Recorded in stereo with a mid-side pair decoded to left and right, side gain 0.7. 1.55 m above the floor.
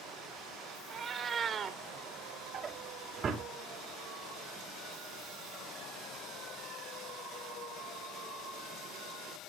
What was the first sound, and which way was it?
A cat meowing, 30° right.